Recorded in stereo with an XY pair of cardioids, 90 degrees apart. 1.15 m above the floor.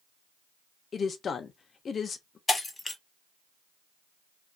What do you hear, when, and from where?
0.9 s a woman speaking: 50° left, 0.7 m
2.5 s breaking glass: 25° left, 1.2 m